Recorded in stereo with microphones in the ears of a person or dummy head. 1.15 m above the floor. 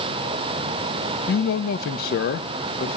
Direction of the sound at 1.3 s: 45° left (ahead or behind).